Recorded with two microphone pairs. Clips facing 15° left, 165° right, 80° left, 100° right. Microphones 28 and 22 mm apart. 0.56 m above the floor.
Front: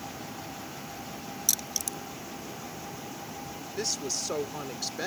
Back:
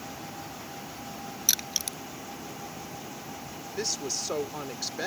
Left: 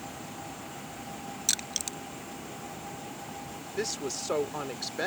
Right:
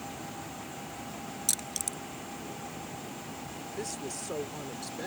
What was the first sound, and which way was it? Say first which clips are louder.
Crushing: back 3 dB, left 4 dB; 135° left.